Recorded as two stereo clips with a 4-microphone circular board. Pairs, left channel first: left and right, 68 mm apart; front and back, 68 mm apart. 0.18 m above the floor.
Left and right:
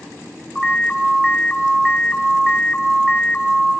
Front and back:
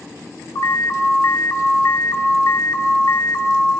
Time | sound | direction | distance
0.6 | an alarm | 10° left | 2.5 m